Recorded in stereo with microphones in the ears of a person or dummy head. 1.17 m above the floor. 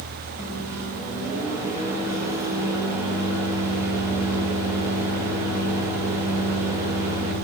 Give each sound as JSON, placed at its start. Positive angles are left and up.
{"t": 0.4, "sound": "a microwave", "side_deg": -10, "distance_m": 0.9}